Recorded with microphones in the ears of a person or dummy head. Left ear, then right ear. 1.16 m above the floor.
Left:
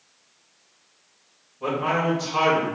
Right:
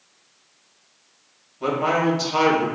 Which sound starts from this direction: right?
A man speaking, at 1.6 s.